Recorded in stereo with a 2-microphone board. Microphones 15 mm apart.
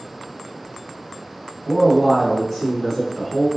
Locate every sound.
1.6 s a man speaking: 5° left (ahead or behind), 1.7 m; by 3.5 s 60° left (ahead or behind), 3 m